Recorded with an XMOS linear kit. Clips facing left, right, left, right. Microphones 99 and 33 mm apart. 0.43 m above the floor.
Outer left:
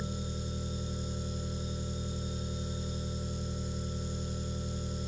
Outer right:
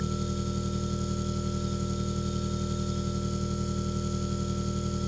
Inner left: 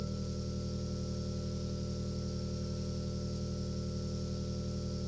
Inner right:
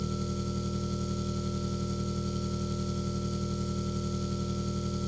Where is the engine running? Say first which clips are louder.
Outer right 7 dB, inner right 6 dB; 70° right (ahead or behind), 3.5 m.